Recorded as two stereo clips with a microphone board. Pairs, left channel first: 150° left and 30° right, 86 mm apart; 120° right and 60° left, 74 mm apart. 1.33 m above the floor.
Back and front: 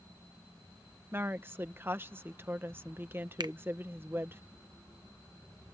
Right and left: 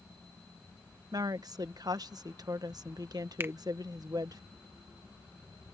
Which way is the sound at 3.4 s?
5° left.